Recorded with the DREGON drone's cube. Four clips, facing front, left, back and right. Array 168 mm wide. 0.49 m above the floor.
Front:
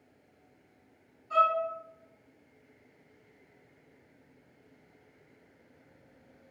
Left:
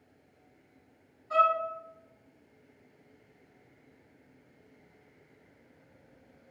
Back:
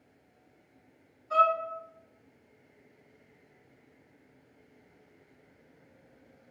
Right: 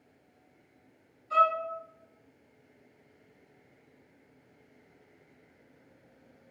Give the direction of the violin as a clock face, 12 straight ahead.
8 o'clock.